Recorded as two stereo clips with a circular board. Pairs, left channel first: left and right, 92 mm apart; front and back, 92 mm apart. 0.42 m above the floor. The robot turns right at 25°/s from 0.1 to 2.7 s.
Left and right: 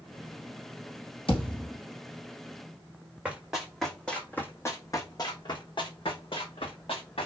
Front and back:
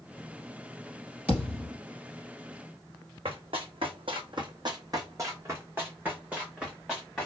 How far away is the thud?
About 1.8 m.